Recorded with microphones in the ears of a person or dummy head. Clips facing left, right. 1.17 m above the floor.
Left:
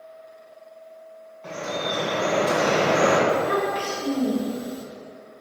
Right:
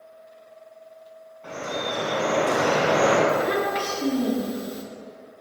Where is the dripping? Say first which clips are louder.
Left 1 dB; 5° right (ahead or behind), 3 m.